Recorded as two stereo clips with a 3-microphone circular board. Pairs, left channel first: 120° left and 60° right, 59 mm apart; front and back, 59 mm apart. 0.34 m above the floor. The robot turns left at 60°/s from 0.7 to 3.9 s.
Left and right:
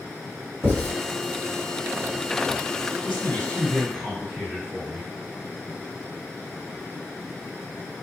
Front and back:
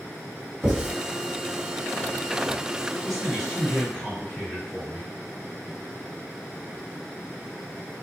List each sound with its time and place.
0.6 s writing: 100° right, 1.8 m; by 0.9 s 115° right, 1.8 m
3.0 s a man speaking: 100° left, 1.9 m; by 5.1 s 45° left, 1.9 m